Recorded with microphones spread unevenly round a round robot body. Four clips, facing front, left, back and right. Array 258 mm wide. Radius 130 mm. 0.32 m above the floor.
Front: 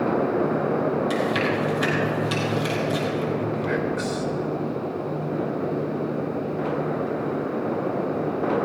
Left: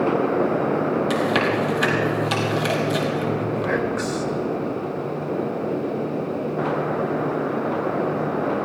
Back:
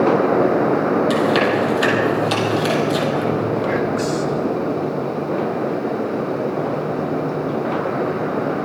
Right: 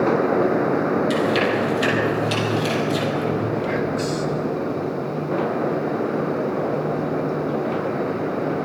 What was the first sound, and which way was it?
Chewing, 135° left.